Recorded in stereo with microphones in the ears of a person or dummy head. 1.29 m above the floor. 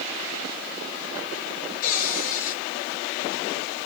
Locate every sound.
1.8 s a cupboard door: 45° left (ahead or behind), 2.5 m